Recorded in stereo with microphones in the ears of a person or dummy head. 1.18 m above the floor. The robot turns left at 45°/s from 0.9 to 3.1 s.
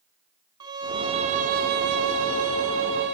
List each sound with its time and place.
0.6 s a violin: 25° right, 1.3 m; by 3.1 s 125° right, 1.3 m